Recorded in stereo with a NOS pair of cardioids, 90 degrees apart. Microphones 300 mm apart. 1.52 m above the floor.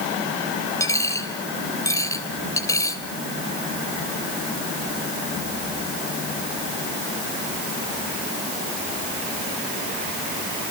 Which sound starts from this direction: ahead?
A dropped coin, at 0.8 s.